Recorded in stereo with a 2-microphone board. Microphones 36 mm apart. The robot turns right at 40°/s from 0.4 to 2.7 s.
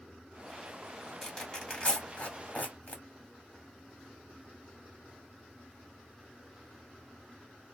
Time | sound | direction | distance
1.2 | tearing paper | 15° left (ahead or behind) | 1.5 m